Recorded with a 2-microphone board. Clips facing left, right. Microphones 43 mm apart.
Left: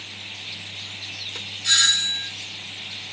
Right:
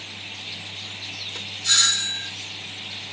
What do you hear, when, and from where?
1.6 s a doorbell: 25° left (ahead or behind), 2.0 m